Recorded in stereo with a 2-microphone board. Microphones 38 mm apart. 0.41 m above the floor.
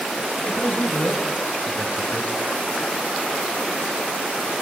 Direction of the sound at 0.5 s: 55° left (ahead or behind).